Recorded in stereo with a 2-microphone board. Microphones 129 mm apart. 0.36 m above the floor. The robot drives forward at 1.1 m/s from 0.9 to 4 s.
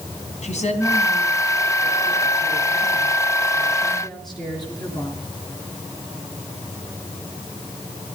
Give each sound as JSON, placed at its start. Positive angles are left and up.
{"t": 0.4, "sound": "a woman speaking", "side_deg": 60, "distance_m": 3.5}